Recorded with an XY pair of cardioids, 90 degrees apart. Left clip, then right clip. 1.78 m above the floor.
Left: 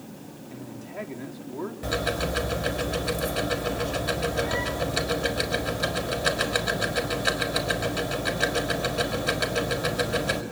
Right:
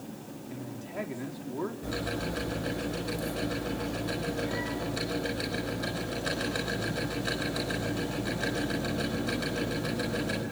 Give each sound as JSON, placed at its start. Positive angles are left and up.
{"t": 0.5, "sound": "a man speaking", "azimuth_deg": -5, "distance_m": 4.5}
{"t": 1.8, "sound": "ticking", "azimuth_deg": 70, "distance_m": 4.5}